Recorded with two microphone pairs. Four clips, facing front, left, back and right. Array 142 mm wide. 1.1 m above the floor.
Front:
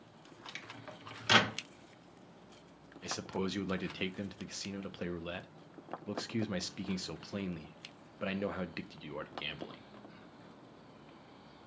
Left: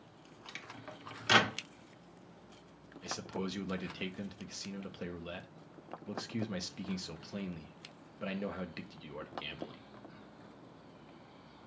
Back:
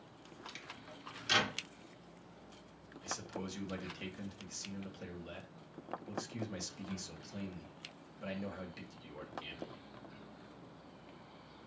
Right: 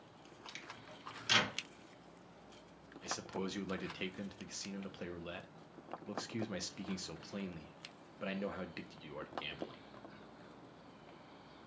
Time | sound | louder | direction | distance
0.5 | a microwave | left 6 dB, front 6 dB | 45° left | 0.9 m
3.0 | a man speaking | left 2 dB, front 6 dB | 15° right | 0.8 m